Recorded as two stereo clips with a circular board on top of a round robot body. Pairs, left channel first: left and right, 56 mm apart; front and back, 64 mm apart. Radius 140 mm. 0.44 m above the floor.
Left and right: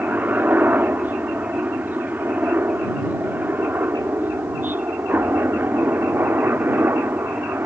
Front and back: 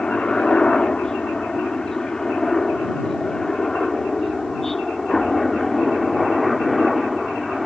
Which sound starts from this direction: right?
A helicopter, at 0.0 s.